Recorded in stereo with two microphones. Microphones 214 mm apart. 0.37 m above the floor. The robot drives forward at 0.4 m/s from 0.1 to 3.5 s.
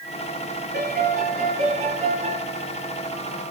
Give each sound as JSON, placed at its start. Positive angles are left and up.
{"t": 0.7, "sound": "a piano", "side_deg": -45, "distance_m": 1.3}